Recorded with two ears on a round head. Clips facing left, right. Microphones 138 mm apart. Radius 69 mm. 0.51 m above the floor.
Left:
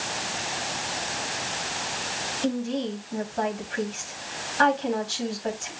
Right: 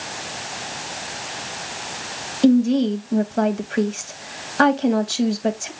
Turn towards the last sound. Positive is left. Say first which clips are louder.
# right 12 dB
turn(degrees=-60)  # may be behind; listen again after turning